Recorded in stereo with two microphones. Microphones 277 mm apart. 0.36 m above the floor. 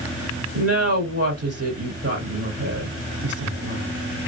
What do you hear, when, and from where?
0.5 s a woman speaking: 55° right (ahead or behind), 1.7 m